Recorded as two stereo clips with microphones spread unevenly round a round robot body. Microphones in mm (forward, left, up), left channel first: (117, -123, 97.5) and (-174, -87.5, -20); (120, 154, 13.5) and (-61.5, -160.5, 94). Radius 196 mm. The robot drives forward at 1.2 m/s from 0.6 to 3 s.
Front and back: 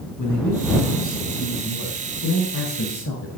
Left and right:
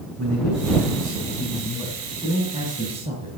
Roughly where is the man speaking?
Ahead right.